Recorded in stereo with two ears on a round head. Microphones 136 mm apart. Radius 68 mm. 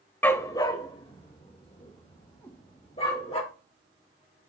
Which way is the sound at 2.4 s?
15° left (ahead or behind).